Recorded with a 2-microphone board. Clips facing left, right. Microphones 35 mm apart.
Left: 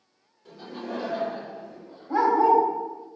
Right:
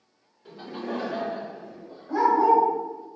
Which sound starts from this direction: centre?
Laughter, at 0.5 s.